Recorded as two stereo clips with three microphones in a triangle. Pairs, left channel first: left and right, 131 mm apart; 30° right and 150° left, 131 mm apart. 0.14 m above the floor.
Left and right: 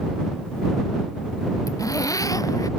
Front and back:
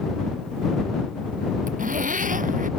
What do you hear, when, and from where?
1.7 s a zipper: 155° left